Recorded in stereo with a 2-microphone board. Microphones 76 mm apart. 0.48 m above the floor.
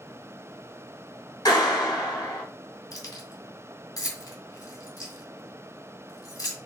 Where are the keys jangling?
60° left (ahead or behind), 0.9 m.